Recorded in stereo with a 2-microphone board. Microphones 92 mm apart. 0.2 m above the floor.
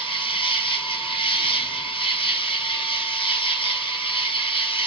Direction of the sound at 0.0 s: 85° left.